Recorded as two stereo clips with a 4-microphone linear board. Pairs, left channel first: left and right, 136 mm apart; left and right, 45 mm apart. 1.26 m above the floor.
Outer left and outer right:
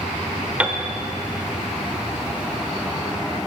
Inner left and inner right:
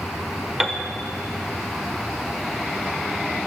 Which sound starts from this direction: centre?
A piano, at 0.6 s.